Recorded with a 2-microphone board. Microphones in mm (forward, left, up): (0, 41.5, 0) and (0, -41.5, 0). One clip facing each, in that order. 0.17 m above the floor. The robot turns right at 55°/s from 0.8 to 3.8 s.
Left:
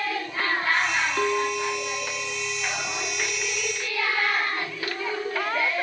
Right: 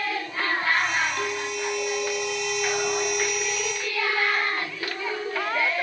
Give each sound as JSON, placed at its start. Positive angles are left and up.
{"t": 1.2, "sound": "a clink", "azimuth_deg": 135, "distance_m": 1.0}